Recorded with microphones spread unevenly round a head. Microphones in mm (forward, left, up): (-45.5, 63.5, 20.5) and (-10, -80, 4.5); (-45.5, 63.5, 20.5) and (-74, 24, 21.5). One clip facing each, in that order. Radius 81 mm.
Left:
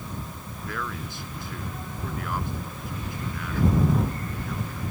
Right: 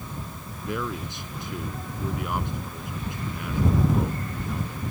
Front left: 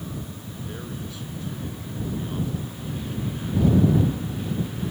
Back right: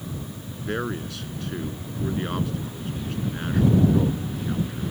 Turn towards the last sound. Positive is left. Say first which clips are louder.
# right 4 dB, back right 9 dB
turn(degrees=-150)